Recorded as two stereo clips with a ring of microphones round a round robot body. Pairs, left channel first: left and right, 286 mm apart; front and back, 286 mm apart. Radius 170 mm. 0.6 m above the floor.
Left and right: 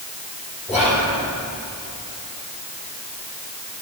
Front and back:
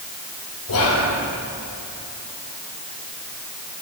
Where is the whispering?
5° right, 2.5 m.